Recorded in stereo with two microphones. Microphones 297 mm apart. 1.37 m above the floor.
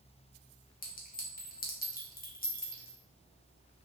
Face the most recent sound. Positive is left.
turn(degrees=30)  # may be behind; listen again after turning